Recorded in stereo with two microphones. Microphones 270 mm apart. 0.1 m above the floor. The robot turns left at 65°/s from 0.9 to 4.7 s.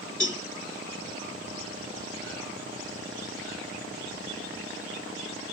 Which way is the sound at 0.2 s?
50° left (ahead or behind).